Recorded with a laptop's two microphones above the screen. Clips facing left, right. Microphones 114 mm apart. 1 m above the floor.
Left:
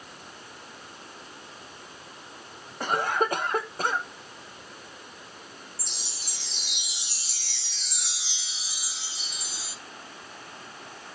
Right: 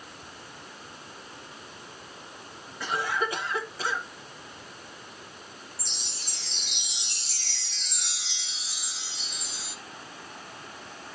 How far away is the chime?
About 2 m.